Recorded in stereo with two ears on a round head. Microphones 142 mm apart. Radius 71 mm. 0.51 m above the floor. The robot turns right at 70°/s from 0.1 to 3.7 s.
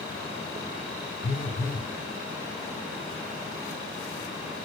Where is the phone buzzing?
130° left, 1.0 m; by 1.9 s straight behind, 1.0 m.